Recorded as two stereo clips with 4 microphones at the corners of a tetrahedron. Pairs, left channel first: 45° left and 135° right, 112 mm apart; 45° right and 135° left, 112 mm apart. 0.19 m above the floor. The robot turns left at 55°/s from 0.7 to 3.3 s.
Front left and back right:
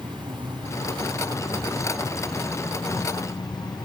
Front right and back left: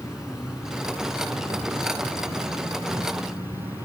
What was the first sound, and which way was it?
An insect, 145° right.